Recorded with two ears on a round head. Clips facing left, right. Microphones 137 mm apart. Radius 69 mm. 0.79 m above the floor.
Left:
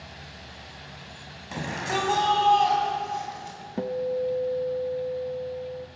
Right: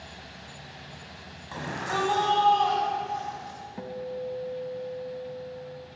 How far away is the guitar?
About 0.8 m.